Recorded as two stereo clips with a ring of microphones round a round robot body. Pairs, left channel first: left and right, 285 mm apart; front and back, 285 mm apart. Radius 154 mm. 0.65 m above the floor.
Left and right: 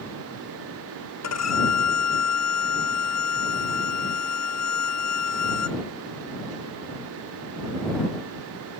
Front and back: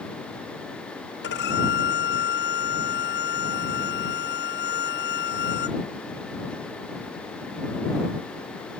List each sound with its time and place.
1.2 s a violin: 60° left